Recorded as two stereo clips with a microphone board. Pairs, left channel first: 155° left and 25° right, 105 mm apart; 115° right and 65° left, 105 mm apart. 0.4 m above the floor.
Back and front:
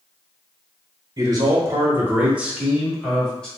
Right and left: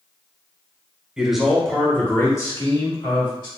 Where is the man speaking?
10° right, 1.0 m; by 3.5 s 125° right, 1.2 m.